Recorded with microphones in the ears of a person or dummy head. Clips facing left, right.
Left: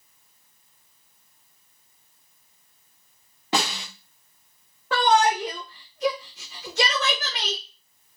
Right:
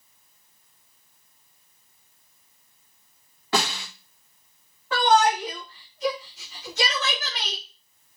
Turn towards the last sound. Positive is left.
turn(degrees=50)  # may be behind; listen again after turning